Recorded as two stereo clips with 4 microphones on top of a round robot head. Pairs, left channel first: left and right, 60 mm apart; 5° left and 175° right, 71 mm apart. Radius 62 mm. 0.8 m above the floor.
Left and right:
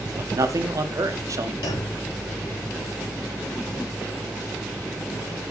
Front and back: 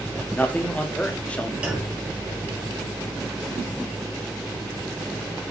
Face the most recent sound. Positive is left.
turn(degrees=105)